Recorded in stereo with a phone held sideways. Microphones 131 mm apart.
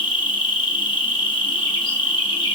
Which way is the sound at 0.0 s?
40° left (ahead or behind).